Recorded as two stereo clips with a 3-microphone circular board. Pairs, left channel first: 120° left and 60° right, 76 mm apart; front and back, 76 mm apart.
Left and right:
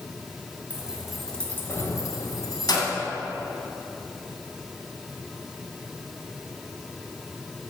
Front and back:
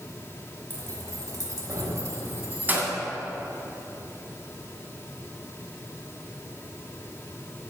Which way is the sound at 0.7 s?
130° right.